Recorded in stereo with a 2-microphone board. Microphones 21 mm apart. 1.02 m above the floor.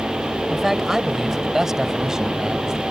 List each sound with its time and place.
0.5 s a man speaking: 10° right (ahead or behind); by 2.8 s 25° right (ahead or behind)